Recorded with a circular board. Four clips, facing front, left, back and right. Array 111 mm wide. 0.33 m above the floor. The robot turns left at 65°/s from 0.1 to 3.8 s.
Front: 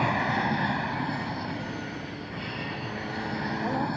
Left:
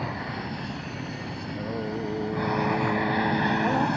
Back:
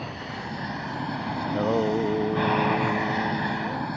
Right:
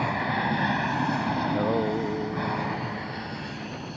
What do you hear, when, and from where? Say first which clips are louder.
0.0 s an aircraft: right 6 dB, front 9 dB; 30° right; by 4.0 s 90° left
1.4 s singing: right 5 dB, back 11 dB; 135° right; by 3.9 s 75° left